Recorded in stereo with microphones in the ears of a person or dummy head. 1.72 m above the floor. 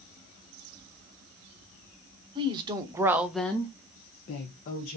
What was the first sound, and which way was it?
A woman speaking, 25° right (ahead or behind).